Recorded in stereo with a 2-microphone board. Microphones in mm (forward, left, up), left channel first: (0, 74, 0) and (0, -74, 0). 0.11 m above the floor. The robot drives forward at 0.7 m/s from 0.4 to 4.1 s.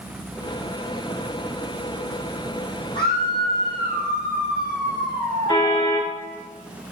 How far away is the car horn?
About 5.5 m.